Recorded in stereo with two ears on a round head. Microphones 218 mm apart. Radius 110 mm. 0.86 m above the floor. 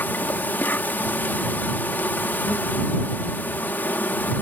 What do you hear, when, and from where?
0.0 s an insect: 10° left (ahead or behind)